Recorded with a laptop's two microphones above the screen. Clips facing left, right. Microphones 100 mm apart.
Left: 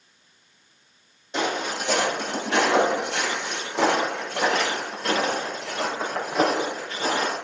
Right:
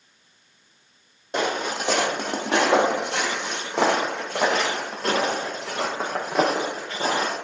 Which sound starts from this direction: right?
Footsteps, at 1.3 s.